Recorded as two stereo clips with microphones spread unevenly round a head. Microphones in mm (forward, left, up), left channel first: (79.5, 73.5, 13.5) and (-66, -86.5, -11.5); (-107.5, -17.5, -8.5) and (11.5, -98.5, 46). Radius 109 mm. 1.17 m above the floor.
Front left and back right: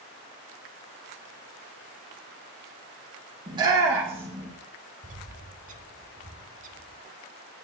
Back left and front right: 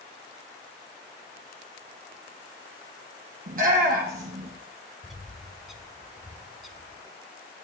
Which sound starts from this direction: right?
A bird, at 5.0 s.